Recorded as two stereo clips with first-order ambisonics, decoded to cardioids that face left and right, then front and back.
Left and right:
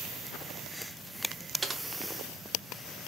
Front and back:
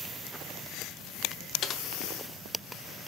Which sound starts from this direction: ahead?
Typing on a keyboard, at 1.6 s.